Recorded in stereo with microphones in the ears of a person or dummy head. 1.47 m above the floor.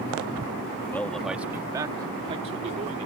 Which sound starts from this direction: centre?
A man speaking, at 0.9 s.